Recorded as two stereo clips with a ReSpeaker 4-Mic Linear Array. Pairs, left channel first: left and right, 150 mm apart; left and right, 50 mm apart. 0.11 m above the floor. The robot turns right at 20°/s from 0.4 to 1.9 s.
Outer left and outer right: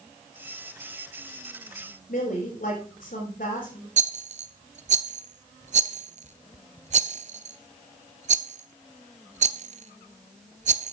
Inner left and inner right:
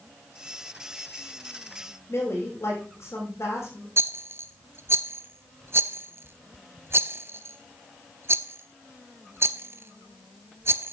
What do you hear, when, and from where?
2.1 s a woman speaking: 75° left (ahead or behind), 6.5 m
4.0 s a rattle: 55° right (ahead or behind), 0.6 m